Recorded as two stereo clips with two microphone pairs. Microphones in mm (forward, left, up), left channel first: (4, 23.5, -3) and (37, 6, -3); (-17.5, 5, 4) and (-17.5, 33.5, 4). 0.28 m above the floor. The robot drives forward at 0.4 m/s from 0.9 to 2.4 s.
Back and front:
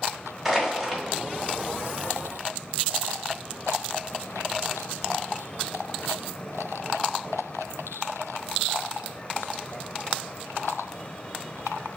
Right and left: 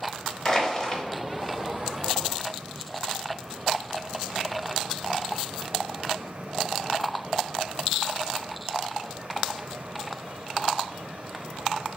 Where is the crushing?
90° right, 1.1 m; by 1.0 s 100° right, 1.1 m.